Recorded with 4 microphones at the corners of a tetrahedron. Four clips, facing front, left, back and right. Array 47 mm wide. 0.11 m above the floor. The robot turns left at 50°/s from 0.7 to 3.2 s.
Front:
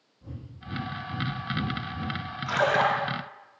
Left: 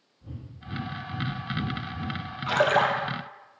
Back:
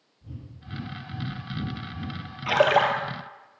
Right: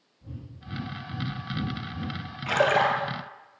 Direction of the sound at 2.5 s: 165° right.